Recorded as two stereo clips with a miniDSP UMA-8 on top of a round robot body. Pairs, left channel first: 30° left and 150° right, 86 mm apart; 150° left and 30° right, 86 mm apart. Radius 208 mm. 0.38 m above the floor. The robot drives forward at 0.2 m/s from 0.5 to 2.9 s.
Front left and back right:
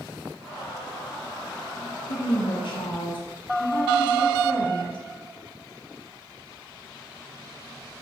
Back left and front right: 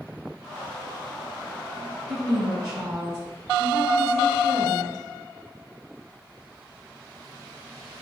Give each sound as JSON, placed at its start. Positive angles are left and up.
{"t": 2.1, "sound": "a woman speaking", "azimuth_deg": 50, "distance_m": 3.5}